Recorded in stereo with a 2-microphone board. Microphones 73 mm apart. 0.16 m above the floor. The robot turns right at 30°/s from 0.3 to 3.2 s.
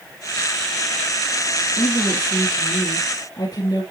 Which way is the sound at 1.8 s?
30° left.